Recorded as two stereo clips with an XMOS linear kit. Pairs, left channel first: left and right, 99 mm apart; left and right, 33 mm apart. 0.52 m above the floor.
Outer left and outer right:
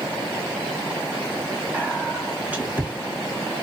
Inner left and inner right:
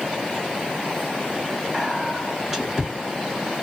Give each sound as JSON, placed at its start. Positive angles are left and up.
{"t": 1.7, "sound": "whispering", "side_deg": -15, "distance_m": 0.7}